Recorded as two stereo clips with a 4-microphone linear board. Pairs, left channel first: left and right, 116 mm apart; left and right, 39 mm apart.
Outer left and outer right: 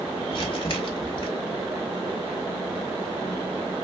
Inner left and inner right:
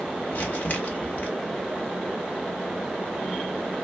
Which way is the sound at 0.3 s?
50° left (ahead or behind).